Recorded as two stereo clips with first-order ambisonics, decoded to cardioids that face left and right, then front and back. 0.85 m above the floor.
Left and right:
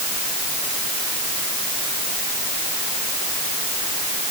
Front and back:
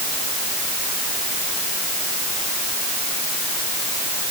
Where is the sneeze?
No sneeze in this recording.